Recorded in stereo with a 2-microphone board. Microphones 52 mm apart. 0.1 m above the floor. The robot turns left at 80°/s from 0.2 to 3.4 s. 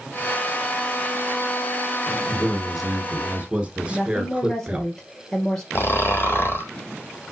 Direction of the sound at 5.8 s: 45° left (ahead or behind).